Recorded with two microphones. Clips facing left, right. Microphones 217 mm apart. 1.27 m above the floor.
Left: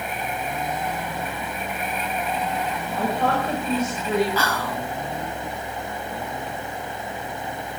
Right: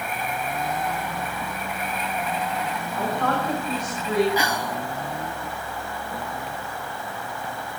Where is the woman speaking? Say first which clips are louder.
Left 2 dB; 30° left (ahead or behind), 5.5 m; by 4.3 s 20° left (ahead or behind), 5 m.